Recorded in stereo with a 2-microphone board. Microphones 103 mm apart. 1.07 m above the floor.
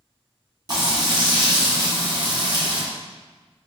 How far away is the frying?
About 2 m.